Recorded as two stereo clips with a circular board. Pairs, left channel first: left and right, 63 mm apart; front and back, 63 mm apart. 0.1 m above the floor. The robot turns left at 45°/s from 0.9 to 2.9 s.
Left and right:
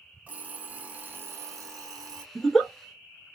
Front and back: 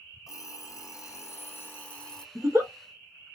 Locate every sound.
0.3 s an alarm clock: 25° right, 1.8 m; by 2.2 s 85° right, 1.8 m
2.4 s a giggle: straight behind, 0.9 m; by 2.7 s 160° left, 0.9 m